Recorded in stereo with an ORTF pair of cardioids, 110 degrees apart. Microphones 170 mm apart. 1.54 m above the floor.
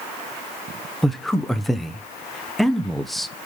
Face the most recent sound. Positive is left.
turn(degrees=0)